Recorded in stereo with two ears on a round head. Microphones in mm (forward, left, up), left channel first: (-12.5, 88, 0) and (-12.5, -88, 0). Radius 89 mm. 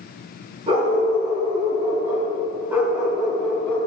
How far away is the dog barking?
About 4 m.